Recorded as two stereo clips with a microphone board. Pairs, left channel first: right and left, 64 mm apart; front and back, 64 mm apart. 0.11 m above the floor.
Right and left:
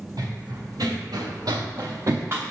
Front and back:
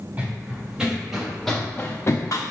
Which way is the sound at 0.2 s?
110° left.